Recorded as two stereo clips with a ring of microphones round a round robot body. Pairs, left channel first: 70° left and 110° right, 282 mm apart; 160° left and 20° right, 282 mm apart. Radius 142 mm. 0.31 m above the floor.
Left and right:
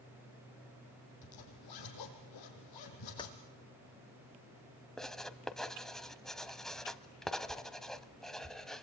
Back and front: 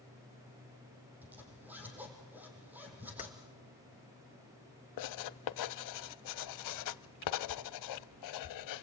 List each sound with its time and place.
1.2 s a zipper: 60° left, 5 m
3.2 s keys jangling: 125° left, 0.6 m
5.0 s writing: 155° left, 0.8 m